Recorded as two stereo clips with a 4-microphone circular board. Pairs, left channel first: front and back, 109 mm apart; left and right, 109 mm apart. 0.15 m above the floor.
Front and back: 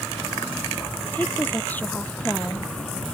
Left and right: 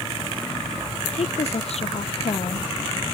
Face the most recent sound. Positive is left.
turn(degrees=75)